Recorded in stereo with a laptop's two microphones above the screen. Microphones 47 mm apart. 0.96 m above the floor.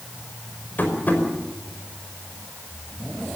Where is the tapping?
40° left (ahead or behind), 5 m.